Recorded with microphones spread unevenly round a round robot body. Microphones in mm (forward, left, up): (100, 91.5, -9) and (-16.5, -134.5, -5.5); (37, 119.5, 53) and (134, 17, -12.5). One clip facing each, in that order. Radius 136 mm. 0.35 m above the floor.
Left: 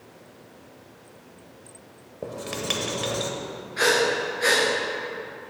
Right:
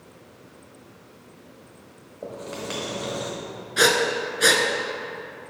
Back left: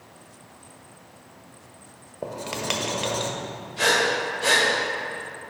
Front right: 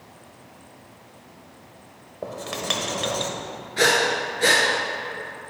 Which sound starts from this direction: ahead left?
Writing, at 2.2 s.